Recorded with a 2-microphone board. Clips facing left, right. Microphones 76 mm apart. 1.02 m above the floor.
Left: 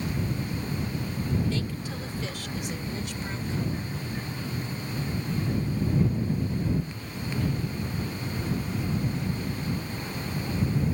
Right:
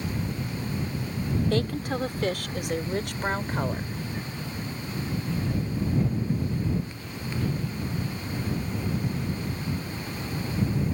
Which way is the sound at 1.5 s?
65° right (ahead or behind).